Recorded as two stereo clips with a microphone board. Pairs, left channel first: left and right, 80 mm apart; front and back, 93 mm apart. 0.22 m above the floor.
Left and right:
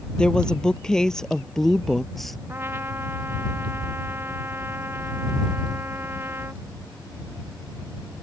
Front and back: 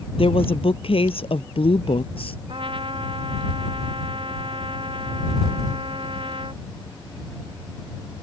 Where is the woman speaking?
10° left; by 2.4 s straight ahead.